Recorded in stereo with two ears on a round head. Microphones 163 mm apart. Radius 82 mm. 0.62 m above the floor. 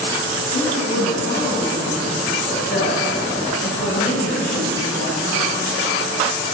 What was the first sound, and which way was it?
A woman speaking, 60° left (ahead or behind).